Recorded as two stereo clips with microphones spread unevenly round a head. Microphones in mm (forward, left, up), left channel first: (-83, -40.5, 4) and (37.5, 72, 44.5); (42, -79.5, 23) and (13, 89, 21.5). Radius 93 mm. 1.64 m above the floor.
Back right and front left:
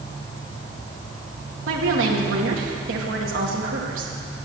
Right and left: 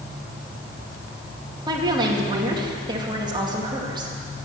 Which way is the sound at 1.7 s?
35° left.